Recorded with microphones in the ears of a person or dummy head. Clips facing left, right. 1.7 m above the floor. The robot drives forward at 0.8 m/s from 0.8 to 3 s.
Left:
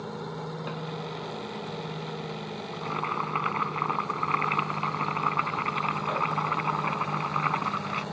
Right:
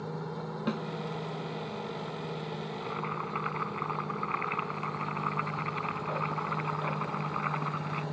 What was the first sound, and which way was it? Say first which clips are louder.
A snare drum: right 3 dB; 45° right (ahead or behind).